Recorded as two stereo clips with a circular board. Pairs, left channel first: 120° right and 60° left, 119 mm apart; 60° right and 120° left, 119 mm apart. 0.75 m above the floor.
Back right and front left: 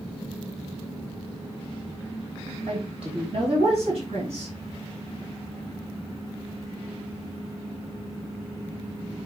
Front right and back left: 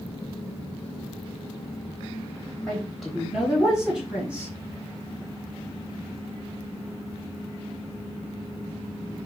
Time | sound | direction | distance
2.7 | a woman speaking | 25° left | 3.5 m